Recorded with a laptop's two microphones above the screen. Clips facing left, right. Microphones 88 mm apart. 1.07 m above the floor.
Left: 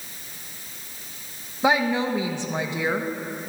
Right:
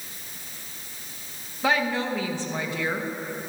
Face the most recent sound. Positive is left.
turn(degrees=20)  # may be behind; listen again after turning